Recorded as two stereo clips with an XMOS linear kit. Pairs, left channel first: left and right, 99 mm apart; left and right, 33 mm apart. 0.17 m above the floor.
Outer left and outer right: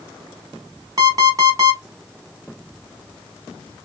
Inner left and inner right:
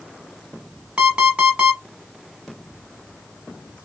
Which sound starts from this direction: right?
An alarm clock, at 1.0 s.